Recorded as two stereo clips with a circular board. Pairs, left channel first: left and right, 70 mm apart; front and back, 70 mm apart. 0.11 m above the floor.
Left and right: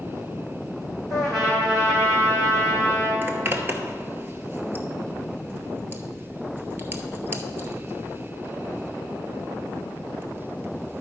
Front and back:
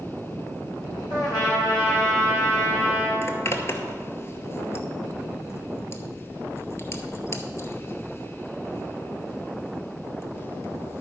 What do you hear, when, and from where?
1.1 s a trumpet: 5° right, 3 m
3.2 s a zipper: 35° right, 0.8 m